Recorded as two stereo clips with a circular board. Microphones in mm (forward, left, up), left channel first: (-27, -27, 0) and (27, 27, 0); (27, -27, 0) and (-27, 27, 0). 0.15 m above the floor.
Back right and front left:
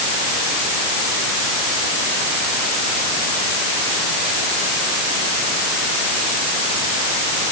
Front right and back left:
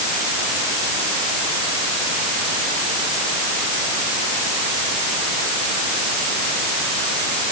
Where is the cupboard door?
No cupboard door in this recording.